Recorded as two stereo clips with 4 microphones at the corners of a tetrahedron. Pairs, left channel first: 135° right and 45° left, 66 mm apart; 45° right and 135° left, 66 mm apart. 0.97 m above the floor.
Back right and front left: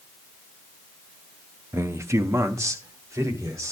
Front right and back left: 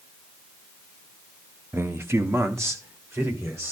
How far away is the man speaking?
About 0.6 m.